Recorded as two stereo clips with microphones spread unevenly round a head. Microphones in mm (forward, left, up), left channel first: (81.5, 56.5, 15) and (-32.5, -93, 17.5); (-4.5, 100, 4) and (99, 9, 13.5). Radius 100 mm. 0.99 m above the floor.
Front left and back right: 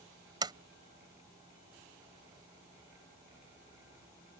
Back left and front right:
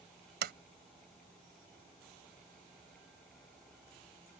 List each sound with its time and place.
0.4 s a sliding door: 60° right